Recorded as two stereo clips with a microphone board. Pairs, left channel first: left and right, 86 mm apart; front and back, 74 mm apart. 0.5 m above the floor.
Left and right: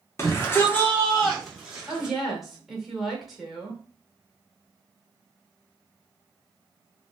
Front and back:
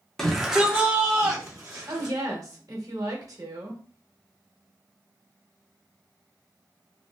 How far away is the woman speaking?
About 1.1 m.